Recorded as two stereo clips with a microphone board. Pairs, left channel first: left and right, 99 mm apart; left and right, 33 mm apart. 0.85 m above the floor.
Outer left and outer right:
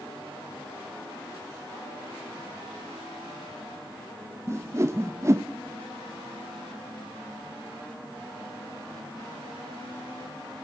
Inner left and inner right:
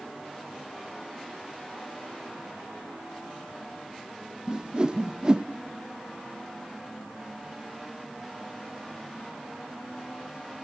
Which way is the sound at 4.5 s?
30° right (ahead or behind).